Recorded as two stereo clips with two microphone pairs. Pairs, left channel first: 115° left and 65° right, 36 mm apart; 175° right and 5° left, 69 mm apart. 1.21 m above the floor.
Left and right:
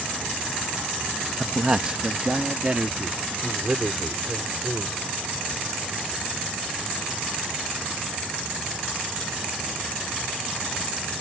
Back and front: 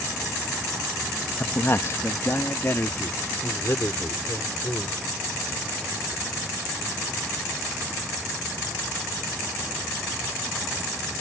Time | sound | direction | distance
1.4 | a man speaking | 125° right | ?